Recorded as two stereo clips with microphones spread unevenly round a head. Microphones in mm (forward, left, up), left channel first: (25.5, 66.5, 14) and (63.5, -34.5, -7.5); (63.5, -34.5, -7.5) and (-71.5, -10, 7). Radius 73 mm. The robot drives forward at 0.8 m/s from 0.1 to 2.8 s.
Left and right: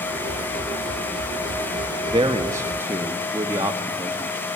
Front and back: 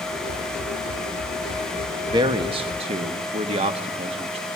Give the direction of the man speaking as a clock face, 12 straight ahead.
4 o'clock.